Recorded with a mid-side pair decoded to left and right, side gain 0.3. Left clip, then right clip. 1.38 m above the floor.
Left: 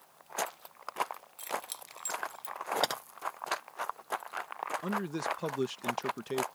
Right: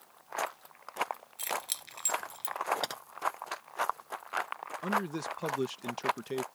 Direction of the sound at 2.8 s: 40° left.